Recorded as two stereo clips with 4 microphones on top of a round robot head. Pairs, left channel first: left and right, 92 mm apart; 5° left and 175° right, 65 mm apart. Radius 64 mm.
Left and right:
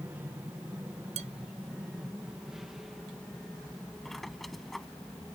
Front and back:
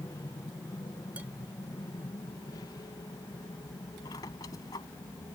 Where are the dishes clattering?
95° right.